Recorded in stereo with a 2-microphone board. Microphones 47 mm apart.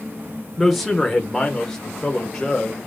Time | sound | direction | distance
0.6 | a man speaking | 5° left (ahead or behind) | 1.0 m